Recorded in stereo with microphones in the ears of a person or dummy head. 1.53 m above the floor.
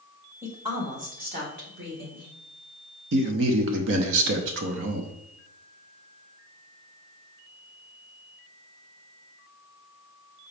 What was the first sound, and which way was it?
A woman speaking, 15° right (ahead or behind).